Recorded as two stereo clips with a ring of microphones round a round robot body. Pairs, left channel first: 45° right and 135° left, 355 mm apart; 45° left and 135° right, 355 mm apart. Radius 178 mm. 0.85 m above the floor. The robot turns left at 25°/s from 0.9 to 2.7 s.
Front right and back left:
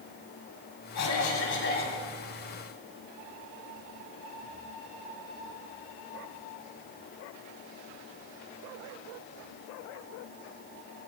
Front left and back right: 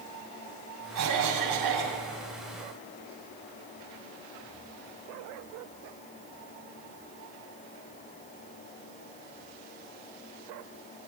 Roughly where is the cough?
Right.